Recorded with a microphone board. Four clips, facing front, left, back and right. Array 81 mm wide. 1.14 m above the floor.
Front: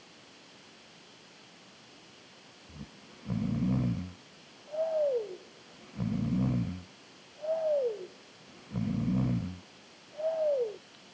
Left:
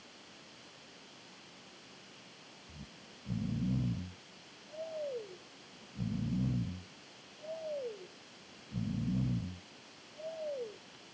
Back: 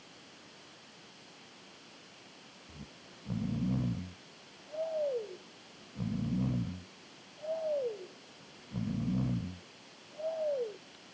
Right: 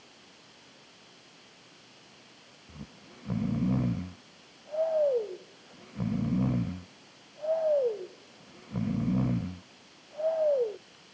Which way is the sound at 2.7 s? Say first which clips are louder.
Right 8 dB, front 3 dB; 75° right.